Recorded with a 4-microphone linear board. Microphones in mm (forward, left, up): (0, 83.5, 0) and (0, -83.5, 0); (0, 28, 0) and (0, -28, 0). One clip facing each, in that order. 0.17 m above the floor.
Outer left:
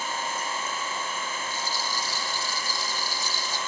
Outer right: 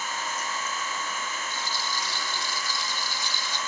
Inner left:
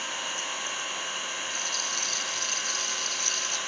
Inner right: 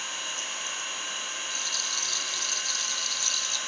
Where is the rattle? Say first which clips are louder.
Outer left 1 dB, inner left 2 dB; 40° left (ahead or behind), 0.9 m.